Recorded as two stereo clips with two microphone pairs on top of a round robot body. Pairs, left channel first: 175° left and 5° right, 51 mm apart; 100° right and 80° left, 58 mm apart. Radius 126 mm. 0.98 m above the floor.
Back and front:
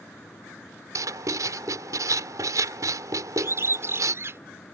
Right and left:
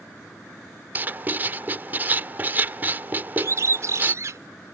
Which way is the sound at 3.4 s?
40° left.